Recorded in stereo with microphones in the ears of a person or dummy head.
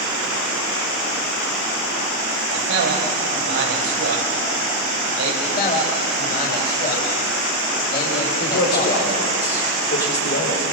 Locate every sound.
2.5 s a man speaking: 50° right (ahead or behind), 6 m
5.4 s a man speaking: 55° left (ahead or behind), 4.5 m
8.4 s a man speaking: 45° left (ahead or behind), 5 m